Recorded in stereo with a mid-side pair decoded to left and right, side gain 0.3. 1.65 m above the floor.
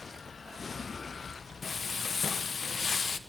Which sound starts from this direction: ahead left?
Frying, at 1.6 s.